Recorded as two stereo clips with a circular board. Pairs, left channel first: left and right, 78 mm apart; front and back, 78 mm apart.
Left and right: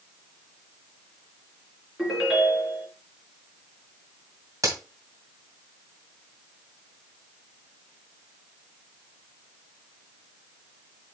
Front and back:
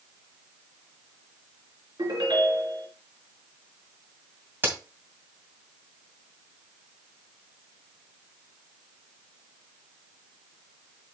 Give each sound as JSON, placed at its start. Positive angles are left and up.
{"t": 2.0, "sound": "a ringtone", "azimuth_deg": -170, "distance_m": 4.0}
{"t": 4.6, "sound": "a crack", "azimuth_deg": -120, "distance_m": 2.5}